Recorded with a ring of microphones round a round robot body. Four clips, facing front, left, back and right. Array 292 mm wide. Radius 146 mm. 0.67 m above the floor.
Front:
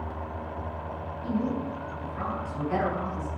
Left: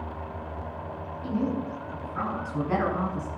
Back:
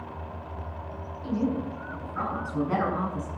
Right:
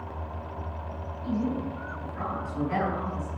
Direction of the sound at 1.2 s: 115° left.